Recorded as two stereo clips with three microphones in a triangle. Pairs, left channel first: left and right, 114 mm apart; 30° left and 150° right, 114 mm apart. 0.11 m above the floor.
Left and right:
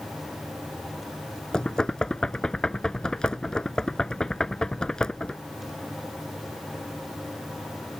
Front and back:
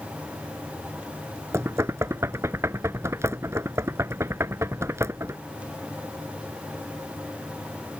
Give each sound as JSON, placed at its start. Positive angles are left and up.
{"t": 1.5, "sound": "knocking", "azimuth_deg": 170}